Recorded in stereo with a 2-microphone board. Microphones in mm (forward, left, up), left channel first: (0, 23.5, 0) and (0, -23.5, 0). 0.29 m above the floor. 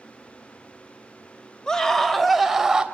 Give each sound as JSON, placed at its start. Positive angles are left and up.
{"t": 1.7, "sound": "a scream", "side_deg": 15, "distance_m": 1.1}